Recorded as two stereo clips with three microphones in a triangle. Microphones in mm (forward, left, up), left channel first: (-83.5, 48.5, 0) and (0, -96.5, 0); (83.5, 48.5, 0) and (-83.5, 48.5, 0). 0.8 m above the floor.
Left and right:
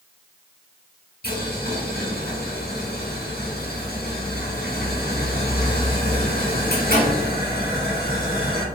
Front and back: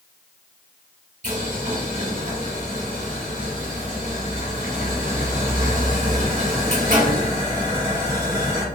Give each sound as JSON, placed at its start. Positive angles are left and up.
{"t": 1.2, "sound": "boiling", "azimuth_deg": 140, "distance_m": 1.5}